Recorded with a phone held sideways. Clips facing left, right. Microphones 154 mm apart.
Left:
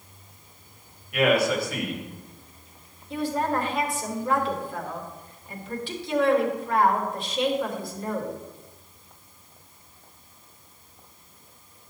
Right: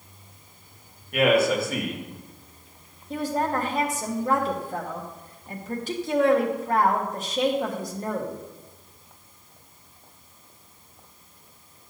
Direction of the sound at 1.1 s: 45° right (ahead or behind).